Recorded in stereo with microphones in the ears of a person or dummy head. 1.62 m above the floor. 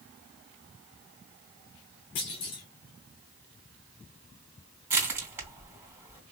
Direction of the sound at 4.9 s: 20° right (ahead or behind).